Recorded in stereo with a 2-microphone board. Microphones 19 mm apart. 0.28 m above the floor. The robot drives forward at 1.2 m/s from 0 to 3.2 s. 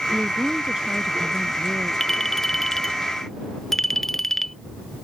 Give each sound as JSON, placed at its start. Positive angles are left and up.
{"t": 0.1, "sound": "a woman speaking", "side_deg": -30}
{"t": 2.0, "sound": "a clink", "side_deg": 15}